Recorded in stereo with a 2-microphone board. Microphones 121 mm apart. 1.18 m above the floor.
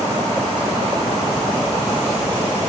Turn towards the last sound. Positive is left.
No sound to turn to.